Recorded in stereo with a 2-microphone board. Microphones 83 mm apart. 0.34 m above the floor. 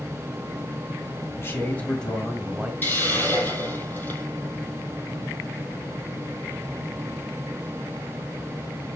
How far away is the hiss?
About 4 m.